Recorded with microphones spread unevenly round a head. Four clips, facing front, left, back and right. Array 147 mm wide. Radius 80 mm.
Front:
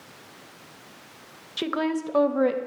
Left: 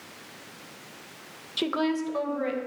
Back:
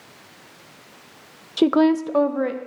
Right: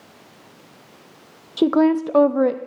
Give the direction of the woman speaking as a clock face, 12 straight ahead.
5 o'clock.